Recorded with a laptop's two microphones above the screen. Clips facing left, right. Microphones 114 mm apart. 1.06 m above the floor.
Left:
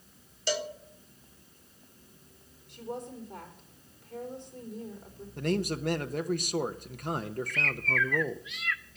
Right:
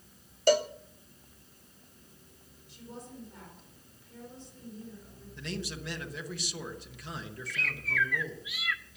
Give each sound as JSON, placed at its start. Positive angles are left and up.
{"t": 0.5, "sound": "a cowbell", "side_deg": -50, "distance_m": 0.7}
{"t": 2.7, "sound": "a woman speaking", "side_deg": 55, "distance_m": 4.0}
{"t": 5.4, "sound": "a man speaking", "side_deg": 50, "distance_m": 0.8}
{"t": 7.5, "sound": "a bird", "side_deg": -10, "distance_m": 1.0}